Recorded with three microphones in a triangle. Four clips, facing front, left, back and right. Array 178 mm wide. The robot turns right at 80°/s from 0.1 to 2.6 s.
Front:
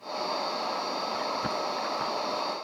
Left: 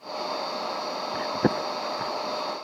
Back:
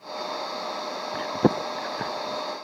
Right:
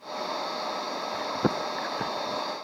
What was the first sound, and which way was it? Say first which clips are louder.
Chewing: left 3 dB, back 7 dB; 145° left.